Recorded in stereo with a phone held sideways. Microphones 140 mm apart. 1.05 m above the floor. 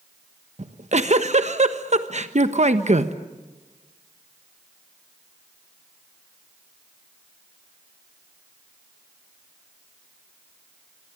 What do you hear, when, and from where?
0.6 s a giggle: 55° right (ahead or behind), 1.3 m